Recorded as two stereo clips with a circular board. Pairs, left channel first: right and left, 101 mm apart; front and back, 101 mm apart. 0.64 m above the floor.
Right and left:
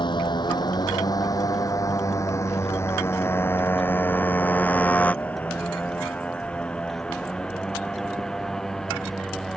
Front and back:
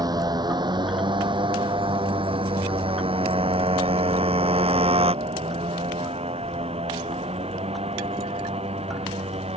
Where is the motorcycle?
130° right; by 9.6 s 175° right.